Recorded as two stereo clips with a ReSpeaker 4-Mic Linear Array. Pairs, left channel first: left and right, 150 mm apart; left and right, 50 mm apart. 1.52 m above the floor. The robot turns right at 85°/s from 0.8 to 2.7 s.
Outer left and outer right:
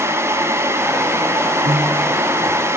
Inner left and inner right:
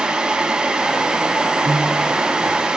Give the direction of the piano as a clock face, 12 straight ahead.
2 o'clock.